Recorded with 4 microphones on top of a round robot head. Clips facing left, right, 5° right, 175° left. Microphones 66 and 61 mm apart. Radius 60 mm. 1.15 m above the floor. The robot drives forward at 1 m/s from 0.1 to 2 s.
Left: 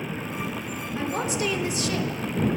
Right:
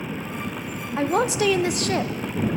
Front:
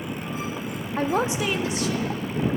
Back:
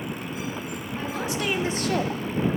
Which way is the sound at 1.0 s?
45° right.